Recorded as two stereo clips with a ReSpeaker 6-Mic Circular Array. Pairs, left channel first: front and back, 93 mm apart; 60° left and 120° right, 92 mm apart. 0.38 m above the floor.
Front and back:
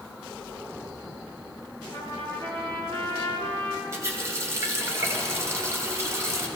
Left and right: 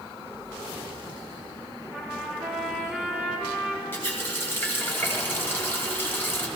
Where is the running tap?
125° left, 1.4 m.